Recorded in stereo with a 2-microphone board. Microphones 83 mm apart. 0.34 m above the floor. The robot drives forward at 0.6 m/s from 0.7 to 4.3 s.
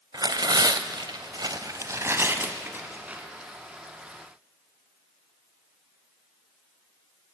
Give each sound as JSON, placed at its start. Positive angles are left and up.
{"t": 0.1, "sound": "tearing paper", "side_deg": -55, "distance_m": 0.5}